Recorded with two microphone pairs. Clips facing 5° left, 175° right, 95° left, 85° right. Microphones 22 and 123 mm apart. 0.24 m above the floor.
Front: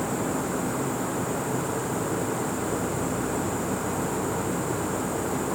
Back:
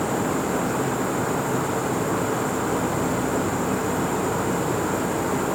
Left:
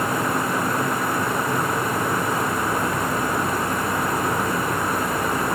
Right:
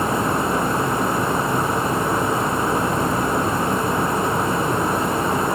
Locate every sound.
Only background noise.